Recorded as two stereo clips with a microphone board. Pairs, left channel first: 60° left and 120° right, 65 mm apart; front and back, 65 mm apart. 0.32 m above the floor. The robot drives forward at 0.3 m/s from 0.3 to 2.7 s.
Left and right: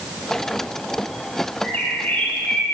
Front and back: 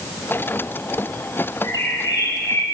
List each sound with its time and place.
1.6 s a bird: 5° right, 9 m